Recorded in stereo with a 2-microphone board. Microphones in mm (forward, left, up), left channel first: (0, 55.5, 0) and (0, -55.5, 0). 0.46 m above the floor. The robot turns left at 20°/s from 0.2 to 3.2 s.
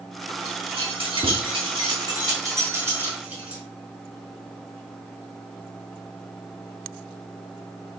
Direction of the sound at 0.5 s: 65° right (ahead or behind).